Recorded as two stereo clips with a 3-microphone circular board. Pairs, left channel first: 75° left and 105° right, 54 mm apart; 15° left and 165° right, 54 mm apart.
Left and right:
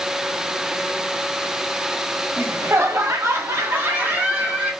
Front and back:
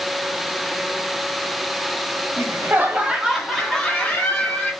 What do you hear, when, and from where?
2.4 s laughter: 140° right, 1.1 m; by 4.7 s 50° right, 2 m